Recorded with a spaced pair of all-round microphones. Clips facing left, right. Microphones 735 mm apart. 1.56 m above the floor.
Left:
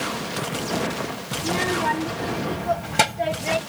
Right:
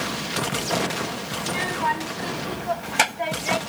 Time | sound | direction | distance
1.4 | a child speaking | 70° left (ahead or behind) | ?